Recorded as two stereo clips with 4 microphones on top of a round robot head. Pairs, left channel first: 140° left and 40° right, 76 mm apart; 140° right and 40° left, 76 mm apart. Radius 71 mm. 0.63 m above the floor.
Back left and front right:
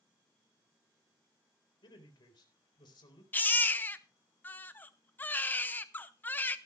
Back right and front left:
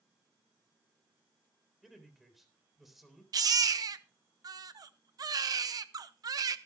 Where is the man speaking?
130° left, 3.5 m.